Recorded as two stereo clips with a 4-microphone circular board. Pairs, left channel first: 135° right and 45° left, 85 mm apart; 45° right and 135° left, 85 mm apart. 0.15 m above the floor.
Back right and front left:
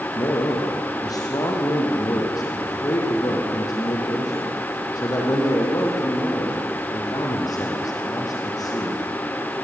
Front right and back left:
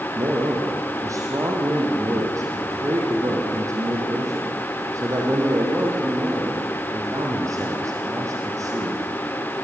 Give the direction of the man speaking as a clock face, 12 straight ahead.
6 o'clock.